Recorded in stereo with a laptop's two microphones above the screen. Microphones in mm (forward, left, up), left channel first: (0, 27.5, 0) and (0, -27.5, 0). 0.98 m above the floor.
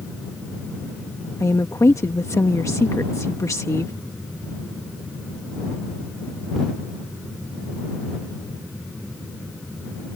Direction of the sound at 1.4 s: 70° left (ahead or behind).